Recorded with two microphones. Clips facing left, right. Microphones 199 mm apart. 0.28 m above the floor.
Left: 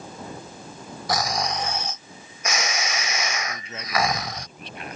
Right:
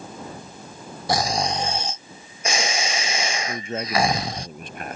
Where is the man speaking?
50° right (ahead or behind).